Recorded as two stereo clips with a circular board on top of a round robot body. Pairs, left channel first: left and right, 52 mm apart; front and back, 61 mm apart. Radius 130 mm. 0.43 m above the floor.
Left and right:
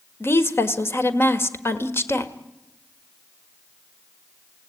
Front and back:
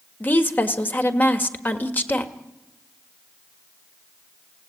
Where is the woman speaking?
55° left, 1.8 m.